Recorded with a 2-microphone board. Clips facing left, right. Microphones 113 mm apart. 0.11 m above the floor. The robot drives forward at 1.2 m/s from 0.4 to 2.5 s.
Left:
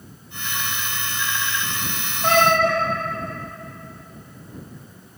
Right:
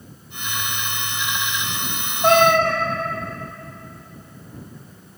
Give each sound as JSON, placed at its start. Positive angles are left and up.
{"t": 2.2, "sound": "a cat meowing", "side_deg": -30, "distance_m": 2.0}